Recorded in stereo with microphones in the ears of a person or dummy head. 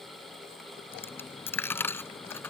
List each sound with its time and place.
0.9 s a dropped coin: 10° left (ahead or behind)